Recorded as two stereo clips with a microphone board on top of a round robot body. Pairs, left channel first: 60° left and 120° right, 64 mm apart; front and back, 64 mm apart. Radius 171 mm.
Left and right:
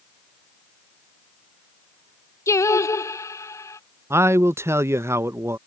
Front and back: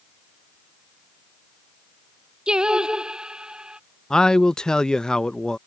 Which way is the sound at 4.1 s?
80° right.